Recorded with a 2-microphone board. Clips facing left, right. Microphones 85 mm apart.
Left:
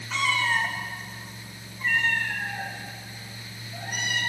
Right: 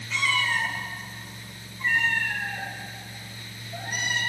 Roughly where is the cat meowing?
Left.